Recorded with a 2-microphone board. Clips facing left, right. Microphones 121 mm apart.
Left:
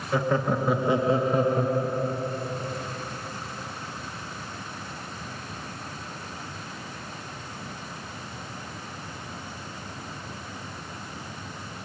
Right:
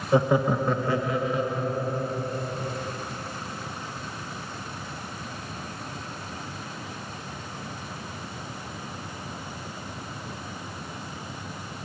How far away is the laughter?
About 0.7 m.